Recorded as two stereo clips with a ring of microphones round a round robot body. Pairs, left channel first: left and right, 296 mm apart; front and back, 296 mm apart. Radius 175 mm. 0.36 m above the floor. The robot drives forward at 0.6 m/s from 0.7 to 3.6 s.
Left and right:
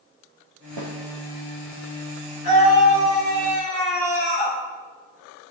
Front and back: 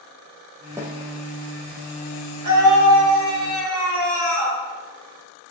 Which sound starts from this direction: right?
A snare drum, at 0.8 s.